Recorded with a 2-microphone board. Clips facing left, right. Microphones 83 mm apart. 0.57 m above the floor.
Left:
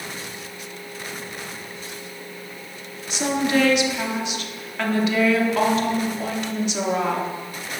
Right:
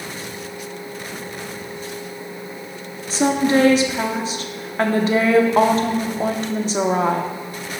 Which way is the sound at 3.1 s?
35° right (ahead or behind).